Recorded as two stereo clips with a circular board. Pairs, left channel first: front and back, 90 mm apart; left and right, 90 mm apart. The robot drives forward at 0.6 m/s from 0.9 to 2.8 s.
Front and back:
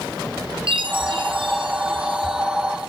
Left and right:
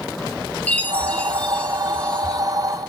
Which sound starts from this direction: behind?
A chime, at 0.7 s.